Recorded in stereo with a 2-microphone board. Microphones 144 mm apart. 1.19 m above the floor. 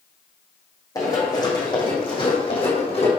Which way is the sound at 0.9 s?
25° left (ahead or behind).